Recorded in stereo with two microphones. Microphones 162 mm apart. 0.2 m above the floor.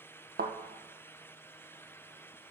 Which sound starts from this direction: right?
A thud, at 0.4 s.